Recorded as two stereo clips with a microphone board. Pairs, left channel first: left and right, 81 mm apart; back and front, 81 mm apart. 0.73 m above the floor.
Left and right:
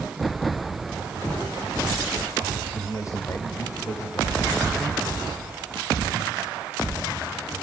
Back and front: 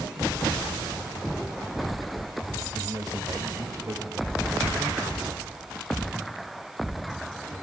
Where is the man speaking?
40° left, 3.5 m.